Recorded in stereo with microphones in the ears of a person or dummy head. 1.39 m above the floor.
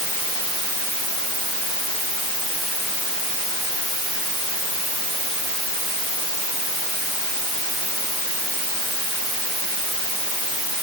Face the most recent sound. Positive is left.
No sound to turn to.